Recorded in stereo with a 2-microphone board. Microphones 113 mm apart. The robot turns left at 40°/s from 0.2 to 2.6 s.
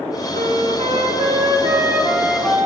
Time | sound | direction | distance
0.3 | a flute | 95° right | 0.8 m